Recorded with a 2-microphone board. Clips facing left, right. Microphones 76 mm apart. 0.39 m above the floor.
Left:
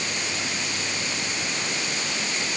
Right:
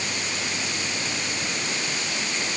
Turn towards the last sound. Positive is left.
No sound to turn to.